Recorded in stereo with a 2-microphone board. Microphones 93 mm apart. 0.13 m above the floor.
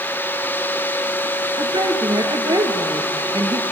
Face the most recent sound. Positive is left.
turn(degrees=-50)  # may be behind; listen again after turning